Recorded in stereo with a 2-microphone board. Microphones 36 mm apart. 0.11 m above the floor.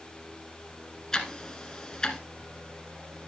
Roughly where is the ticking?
Left.